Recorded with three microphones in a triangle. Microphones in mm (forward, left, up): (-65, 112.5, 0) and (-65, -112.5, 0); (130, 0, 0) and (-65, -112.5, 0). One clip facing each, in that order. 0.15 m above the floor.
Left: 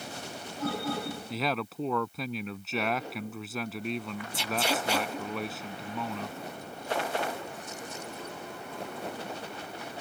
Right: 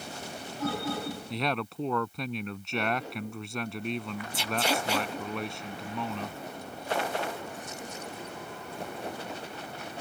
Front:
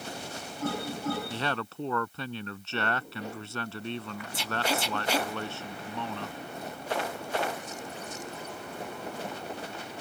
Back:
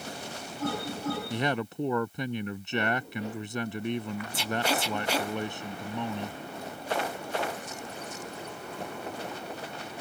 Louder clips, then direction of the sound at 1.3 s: Even, back 4 dB; 175° left.